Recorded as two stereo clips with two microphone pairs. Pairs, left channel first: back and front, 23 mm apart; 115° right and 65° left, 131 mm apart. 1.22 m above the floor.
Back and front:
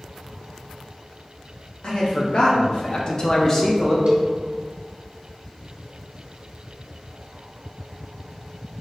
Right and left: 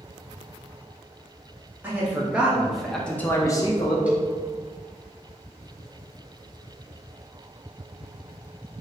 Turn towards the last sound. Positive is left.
turn(degrees=-10)